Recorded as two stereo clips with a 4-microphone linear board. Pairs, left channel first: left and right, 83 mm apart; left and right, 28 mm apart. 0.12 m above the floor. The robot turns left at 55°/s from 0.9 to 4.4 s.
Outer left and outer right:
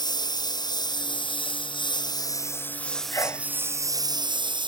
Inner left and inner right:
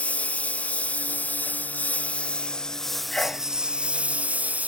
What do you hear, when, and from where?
0.0 s a lawn mower: 125° left; by 4.7 s 70° right
3.1 s a sneeze: 40° left (ahead or behind); by 3.5 s 25° left (ahead or behind)